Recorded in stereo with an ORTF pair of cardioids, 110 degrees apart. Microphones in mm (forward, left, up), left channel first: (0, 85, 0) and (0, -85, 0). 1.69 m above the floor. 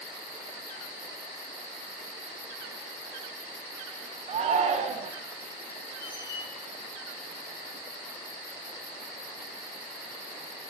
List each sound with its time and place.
4.3 s a shout: 40° right, 0.7 m
6.0 s a squeak: 65° left, 2 m